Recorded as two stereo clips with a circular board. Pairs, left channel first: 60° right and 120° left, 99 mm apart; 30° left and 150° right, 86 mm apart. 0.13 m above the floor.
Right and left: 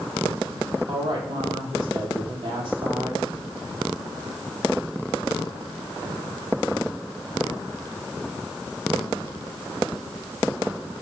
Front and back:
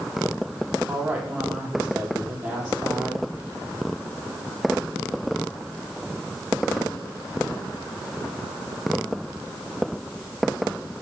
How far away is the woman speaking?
About 4.5 m.